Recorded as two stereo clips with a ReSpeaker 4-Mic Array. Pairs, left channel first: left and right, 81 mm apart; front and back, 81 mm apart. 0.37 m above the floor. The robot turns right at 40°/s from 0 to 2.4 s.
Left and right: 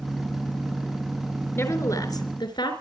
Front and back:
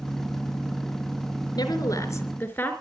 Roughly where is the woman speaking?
Ahead left.